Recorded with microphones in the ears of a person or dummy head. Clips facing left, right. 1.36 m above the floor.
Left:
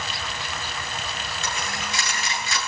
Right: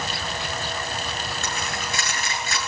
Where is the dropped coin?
40° right (ahead or behind), 6.5 m.